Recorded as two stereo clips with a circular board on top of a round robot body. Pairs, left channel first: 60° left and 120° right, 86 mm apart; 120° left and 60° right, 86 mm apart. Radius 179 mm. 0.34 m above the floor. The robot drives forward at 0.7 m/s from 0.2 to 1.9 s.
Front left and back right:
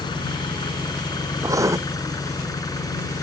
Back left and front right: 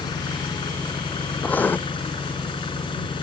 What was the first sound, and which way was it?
An engine running, 90° left.